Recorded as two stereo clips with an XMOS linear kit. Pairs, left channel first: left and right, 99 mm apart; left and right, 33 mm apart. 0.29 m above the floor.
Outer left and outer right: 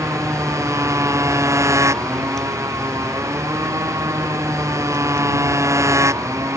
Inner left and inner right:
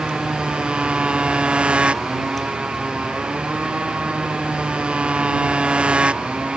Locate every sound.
0.0 s a motorcycle: 30° right (ahead or behind)